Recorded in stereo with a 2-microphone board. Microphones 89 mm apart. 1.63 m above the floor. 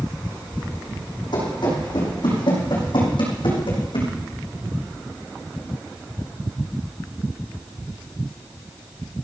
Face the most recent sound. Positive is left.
turn(degrees=70)  # may be behind; listen again after turning